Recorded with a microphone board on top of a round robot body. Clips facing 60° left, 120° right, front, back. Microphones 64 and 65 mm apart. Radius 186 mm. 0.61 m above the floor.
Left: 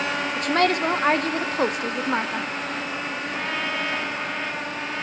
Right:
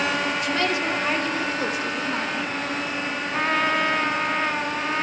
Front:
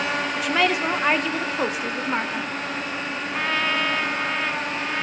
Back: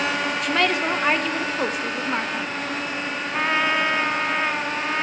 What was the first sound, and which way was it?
A woman speaking, 85° left.